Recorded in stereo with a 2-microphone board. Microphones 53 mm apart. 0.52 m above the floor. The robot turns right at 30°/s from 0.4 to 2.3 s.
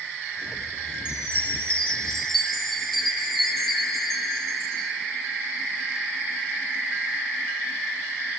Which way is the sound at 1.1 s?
135° left.